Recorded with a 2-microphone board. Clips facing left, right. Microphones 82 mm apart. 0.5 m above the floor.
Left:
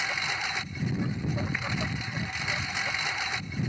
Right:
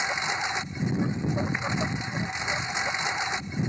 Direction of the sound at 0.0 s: 20° right (ahead or behind).